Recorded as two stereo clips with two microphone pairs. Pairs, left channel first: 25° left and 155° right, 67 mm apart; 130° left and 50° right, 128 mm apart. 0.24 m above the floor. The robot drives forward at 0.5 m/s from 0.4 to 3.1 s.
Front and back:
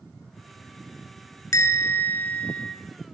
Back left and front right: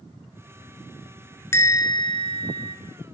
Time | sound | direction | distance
1.5 | a bell | 60° left | 0.8 m